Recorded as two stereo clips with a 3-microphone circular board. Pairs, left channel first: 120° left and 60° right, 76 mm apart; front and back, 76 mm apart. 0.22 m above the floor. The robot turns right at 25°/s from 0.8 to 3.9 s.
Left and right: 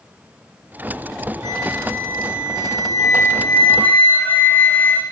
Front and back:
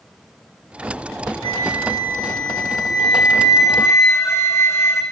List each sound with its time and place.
1.4 s a flute: 10° right, 4.5 m; by 5.0 s 55° left, 4.5 m